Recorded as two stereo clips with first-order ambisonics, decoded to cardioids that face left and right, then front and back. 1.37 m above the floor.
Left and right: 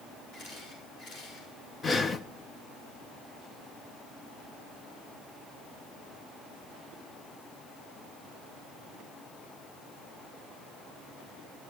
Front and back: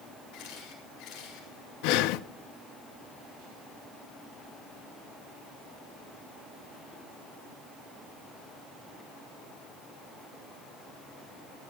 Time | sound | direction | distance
0.3 | a camera shutter | 35° left | 6 m
1.8 | breathing | 15° left | 0.5 m